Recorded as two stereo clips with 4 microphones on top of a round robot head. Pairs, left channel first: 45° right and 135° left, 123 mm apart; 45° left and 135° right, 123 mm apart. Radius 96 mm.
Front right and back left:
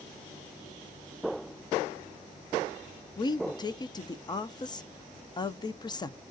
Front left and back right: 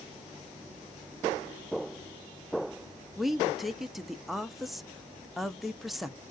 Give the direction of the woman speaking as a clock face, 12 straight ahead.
2 o'clock.